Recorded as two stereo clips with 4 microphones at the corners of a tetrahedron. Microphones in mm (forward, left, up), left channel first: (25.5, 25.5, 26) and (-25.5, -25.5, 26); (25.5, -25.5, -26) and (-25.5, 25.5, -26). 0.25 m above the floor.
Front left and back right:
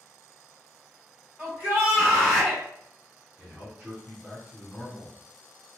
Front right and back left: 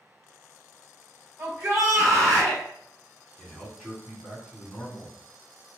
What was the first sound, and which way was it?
A shout, 175° left.